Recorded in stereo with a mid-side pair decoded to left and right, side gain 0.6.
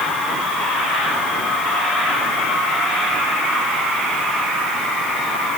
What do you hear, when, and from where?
Only background noise.